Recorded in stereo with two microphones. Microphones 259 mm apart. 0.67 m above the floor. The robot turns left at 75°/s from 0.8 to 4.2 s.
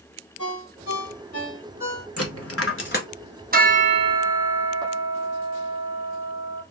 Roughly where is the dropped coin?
Left.